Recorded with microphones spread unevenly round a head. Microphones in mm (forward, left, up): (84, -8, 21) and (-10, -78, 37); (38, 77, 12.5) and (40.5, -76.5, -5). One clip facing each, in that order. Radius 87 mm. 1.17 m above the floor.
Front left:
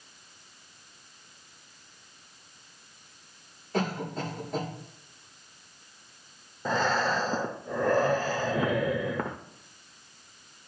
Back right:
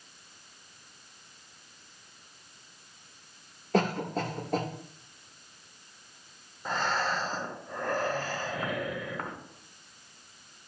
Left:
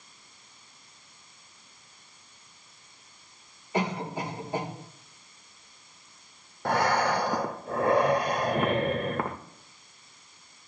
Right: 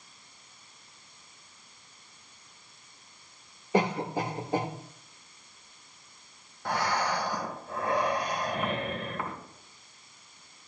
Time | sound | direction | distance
3.7 | a cough | 125° right | 3 m
6.7 | breathing | 55° left | 0.7 m